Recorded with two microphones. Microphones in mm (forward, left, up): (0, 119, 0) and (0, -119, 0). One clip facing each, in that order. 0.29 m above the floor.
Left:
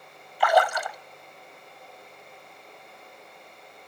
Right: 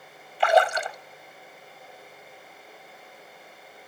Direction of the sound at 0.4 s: 25° right (ahead or behind).